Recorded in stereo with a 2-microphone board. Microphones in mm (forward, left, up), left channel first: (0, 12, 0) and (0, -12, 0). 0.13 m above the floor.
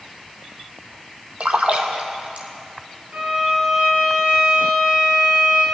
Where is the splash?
60° right (ahead or behind), 1.0 m.